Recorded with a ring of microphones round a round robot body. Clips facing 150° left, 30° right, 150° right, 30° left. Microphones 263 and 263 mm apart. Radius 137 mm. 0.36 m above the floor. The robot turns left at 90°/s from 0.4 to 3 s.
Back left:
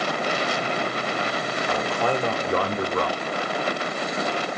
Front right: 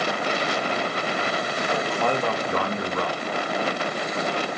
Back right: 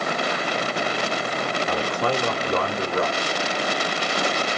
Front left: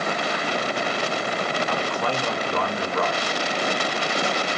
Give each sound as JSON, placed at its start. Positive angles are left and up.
{"t": 1.7, "sound": "a man speaking", "azimuth_deg": -90, "distance_m": 1.1}